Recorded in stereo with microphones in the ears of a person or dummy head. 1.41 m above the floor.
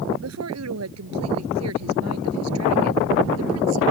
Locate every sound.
0.2 s a woman speaking: 80° right